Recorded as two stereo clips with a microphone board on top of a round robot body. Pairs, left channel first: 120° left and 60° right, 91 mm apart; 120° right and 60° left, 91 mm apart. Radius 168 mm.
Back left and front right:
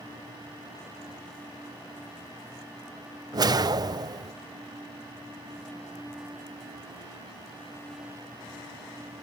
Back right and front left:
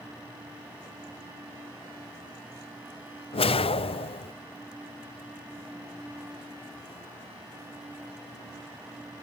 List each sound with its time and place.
3.3 s a whoosh: 105° right, 0.7 m